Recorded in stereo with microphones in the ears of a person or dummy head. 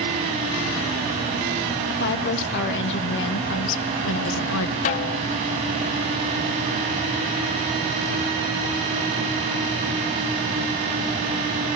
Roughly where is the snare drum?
Left.